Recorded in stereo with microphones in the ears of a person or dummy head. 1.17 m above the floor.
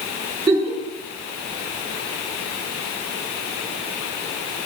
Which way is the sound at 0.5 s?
20° right (ahead or behind).